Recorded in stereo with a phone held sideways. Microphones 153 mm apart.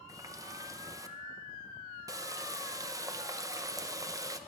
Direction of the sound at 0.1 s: 20° right (ahead or behind).